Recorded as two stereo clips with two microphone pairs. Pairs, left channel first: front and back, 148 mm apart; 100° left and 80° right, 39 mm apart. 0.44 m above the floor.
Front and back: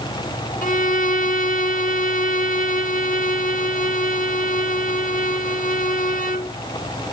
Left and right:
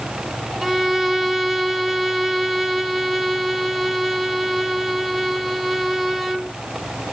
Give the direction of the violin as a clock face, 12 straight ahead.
12 o'clock.